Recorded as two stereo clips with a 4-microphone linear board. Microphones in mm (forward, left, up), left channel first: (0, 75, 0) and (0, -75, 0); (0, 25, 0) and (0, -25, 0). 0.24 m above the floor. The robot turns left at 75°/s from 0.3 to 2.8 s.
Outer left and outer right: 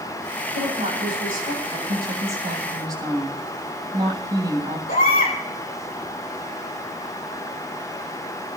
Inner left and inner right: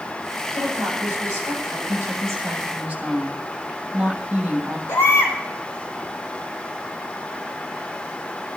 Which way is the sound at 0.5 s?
50° right.